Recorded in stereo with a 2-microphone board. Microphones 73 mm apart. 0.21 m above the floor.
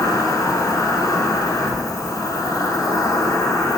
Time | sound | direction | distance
0.0 | an insect | 50° left (ahead or behind) | 2.5 m